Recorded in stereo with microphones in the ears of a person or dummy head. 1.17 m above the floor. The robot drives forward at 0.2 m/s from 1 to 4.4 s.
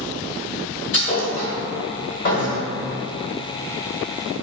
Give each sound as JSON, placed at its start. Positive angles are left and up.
{"t": 0.9, "sound": "a thud", "side_deg": 45, "distance_m": 1.4}